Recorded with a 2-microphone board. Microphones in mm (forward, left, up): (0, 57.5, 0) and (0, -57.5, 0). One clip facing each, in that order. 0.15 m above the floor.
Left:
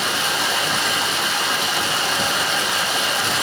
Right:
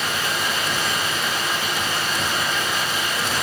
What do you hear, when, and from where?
0.0 s running water: 80° left, 3 m